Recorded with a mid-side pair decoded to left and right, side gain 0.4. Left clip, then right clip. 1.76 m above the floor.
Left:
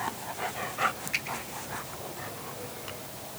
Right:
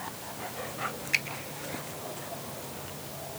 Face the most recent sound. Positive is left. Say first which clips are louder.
# right 4 dB
turn(degrees=-50)